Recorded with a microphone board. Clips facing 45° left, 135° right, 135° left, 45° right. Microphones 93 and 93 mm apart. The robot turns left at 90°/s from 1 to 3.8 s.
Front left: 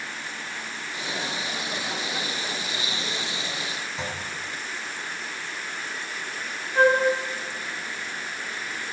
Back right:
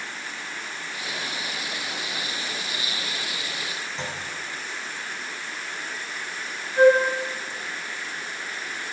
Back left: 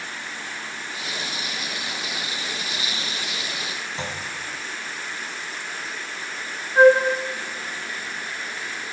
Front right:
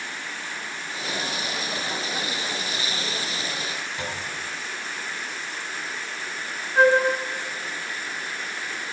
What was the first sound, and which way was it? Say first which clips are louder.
A clunk: front left 1 dB, back left 2 dB; 125° left.